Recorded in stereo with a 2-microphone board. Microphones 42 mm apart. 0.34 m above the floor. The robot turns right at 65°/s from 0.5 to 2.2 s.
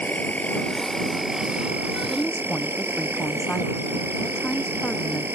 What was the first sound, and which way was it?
An insect, 135° left.